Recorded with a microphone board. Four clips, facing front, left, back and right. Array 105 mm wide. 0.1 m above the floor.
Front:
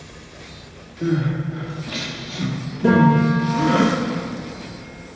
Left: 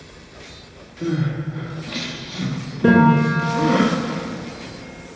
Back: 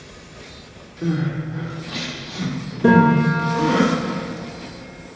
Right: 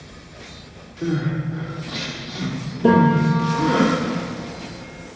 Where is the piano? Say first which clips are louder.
Left 1 dB, back 1 dB; 110° left, 2.5 m.